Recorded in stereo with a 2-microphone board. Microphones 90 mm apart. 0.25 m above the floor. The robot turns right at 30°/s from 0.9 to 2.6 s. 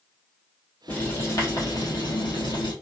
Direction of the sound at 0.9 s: 20° left.